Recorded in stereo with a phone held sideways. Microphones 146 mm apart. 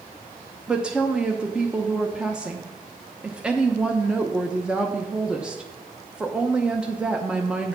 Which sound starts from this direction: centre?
A woman speaking, at 0.7 s.